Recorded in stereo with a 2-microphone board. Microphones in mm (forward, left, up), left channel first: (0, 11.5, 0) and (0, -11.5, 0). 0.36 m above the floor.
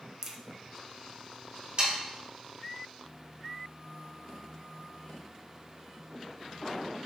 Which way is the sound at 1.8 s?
40° right (ahead or behind).